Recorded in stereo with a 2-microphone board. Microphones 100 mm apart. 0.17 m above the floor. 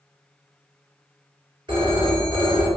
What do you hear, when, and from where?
1.7 s a phone ringing: 45° right (ahead or behind), 1.6 m